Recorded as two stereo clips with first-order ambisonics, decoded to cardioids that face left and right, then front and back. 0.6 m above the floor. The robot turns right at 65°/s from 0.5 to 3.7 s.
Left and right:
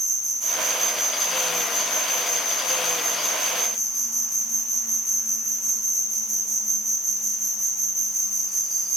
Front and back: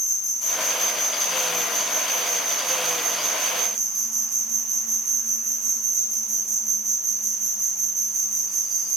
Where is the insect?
25° right, 1.3 m; by 9.0 s 175° right, 1.3 m.